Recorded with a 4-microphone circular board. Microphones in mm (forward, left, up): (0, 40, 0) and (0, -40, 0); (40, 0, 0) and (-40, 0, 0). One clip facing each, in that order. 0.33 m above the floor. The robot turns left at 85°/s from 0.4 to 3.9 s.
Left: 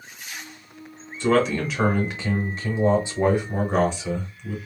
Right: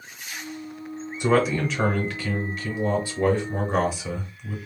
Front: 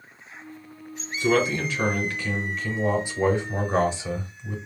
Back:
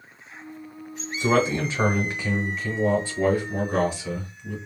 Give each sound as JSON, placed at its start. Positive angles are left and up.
{"t": 1.2, "sound": "a man speaking", "azimuth_deg": -145, "distance_m": 0.9}